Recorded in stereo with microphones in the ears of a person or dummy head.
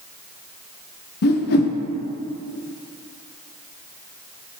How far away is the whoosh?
About 0.7 m.